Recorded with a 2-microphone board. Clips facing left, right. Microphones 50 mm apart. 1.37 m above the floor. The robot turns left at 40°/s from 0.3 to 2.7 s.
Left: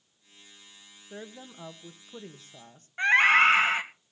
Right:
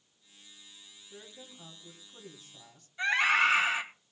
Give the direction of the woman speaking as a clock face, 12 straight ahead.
9 o'clock.